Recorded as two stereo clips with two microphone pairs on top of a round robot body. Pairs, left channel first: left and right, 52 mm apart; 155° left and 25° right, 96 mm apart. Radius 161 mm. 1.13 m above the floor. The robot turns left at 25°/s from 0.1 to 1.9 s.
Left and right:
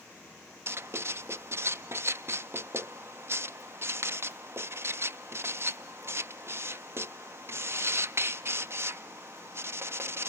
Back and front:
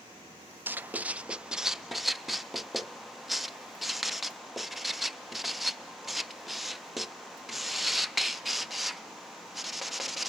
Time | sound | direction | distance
0.7 | writing | 70° right | 0.7 m